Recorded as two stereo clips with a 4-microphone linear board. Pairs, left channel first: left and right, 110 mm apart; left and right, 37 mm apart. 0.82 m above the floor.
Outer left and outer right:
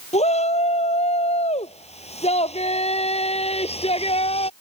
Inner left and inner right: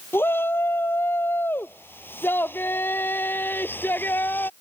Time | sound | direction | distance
0.1 | a shout | 75° left (ahead or behind) | ?